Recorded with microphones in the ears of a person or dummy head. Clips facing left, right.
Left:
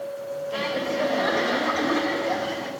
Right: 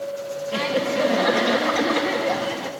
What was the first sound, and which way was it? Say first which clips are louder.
Laughter: right 5 dB; 45° right (ahead or behind).